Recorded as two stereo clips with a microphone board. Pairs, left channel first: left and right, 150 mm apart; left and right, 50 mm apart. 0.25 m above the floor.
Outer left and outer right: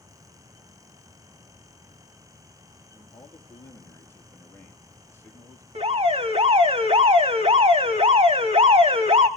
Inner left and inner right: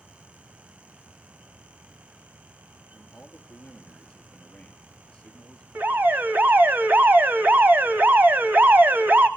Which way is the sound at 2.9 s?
15° left (ahead or behind).